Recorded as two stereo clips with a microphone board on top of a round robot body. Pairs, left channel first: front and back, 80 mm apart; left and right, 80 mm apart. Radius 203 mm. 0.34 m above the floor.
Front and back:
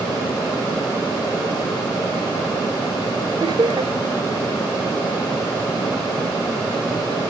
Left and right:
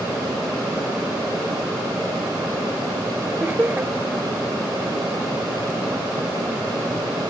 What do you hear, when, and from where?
3.4 s laughter: 160° right